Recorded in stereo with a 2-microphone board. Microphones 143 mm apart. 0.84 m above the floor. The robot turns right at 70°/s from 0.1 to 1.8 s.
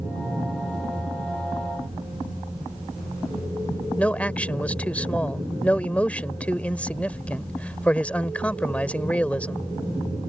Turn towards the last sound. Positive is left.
turn(degrees=10)  # may be behind; listen again after turning